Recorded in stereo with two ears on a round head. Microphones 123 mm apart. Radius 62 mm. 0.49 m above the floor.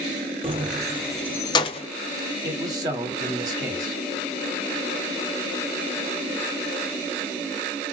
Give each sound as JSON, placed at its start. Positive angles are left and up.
{"t": 0.4, "sound": "keys jangling", "side_deg": -45, "distance_m": 0.7}
{"t": 2.4, "sound": "a man speaking", "side_deg": -25, "distance_m": 1.3}